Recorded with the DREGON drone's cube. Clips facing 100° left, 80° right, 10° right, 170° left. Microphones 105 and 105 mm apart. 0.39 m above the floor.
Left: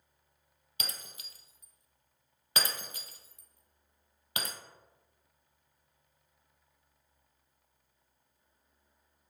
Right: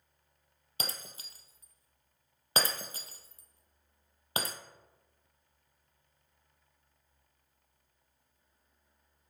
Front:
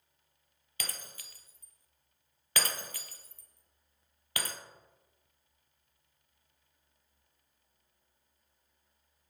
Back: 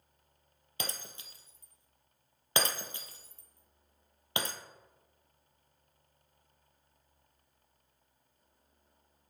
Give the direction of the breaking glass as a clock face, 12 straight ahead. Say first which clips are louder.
Right 3 dB, back 4 dB; 4 o'clock.